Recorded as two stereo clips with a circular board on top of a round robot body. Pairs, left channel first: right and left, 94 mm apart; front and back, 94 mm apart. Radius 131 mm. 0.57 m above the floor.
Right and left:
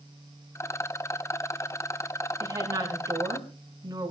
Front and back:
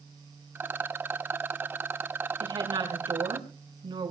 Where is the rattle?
125° right, 1.1 m.